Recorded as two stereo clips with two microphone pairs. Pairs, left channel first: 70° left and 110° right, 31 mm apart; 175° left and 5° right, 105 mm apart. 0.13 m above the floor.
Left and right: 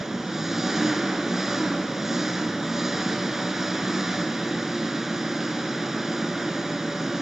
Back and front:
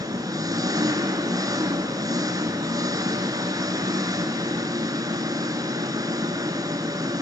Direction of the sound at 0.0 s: 40° right.